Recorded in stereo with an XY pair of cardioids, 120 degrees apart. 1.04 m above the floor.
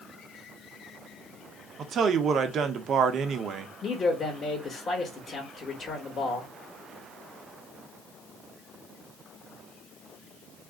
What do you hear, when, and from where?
1.8 s a man speaking: 50° right, 0.6 m
3.8 s a man speaking: 35° left, 1.1 m